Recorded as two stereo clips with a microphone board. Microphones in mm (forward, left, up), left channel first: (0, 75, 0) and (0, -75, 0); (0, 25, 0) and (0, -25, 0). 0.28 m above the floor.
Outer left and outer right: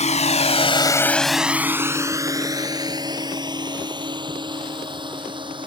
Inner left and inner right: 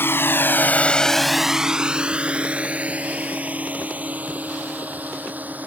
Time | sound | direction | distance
0.0 | a drone | 50° left (ahead or behind) | ?